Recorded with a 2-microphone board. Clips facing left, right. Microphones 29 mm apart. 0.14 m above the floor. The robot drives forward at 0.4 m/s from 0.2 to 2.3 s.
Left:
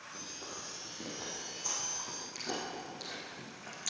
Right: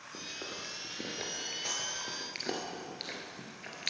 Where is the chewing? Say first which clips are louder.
Right 6 dB; 55° right (ahead or behind), 1.7 m; by 3.9 s 45° right (ahead or behind), 2 m.